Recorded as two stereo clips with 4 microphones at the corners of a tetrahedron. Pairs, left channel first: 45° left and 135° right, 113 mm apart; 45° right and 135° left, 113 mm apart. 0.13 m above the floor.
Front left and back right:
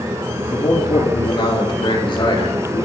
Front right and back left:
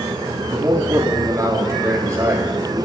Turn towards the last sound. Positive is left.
turn(degrees=80)